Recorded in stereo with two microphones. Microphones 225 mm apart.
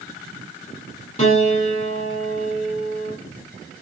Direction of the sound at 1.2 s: 30° left (ahead or behind).